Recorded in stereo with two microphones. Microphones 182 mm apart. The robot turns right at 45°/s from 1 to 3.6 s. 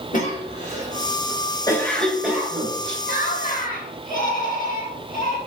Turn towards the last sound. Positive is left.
turn(degrees=25)  # may be behind; listen again after turning